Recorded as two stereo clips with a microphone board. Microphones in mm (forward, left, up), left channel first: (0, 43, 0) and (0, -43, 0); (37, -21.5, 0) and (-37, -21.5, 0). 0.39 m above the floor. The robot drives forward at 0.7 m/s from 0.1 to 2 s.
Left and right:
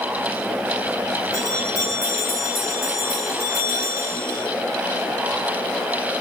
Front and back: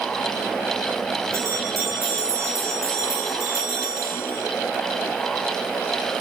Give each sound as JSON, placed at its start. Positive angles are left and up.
{"t": 1.3, "sound": "a bell", "azimuth_deg": -135, "distance_m": 3.0}